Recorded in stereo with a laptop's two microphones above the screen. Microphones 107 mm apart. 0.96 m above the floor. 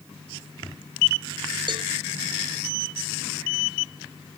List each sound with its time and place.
1.7 s a cowbell: 50° right (ahead or behind), 0.6 m